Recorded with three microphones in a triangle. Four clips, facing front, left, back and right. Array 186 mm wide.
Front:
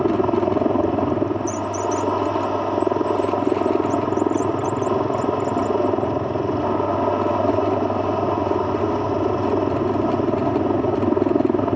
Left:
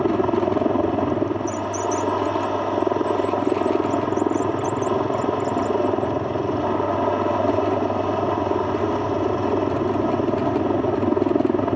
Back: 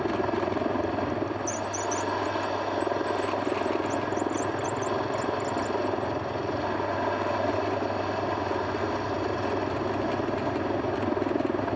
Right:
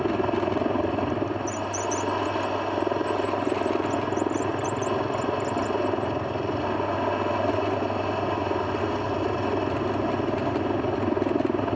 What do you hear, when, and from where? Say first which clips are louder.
0.0 s a helicopter: left 5 dB, front 9 dB; 35° left